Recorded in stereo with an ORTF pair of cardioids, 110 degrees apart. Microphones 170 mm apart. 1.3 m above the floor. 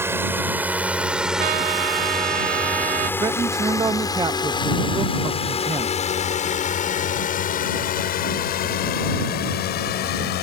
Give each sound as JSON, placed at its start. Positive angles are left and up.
{"t": 0.0, "sound": "a drone", "azimuth_deg": -15}
{"t": 1.4, "sound": "a trumpet", "azimuth_deg": -60}
{"t": 3.2, "sound": "a man speaking", "azimuth_deg": -20}